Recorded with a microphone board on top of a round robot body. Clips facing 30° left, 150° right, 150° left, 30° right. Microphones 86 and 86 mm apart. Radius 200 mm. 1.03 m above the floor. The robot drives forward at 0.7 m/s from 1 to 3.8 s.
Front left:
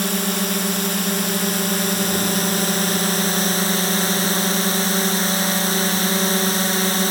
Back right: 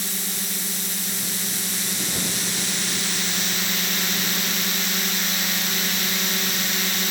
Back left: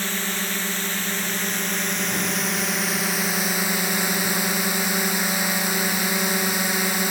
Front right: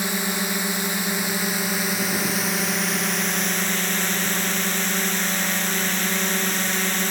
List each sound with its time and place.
0.0 s a drone: 45° left; by 7.1 s 70° left